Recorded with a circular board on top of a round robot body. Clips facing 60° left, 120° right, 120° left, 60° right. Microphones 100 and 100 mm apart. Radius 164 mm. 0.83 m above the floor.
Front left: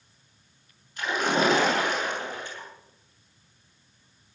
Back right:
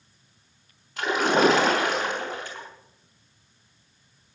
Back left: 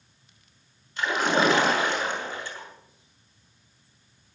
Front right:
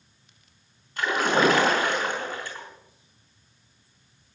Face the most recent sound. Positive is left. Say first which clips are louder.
# back right 4 dB, front right 1 dB
turn(degrees=-105)